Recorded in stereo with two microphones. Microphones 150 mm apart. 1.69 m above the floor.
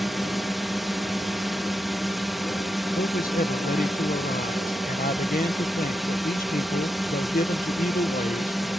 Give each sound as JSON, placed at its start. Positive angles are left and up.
{"t": 0.0, "sound": "a drone", "side_deg": 0}
{"t": 3.0, "sound": "a man speaking", "side_deg": 70}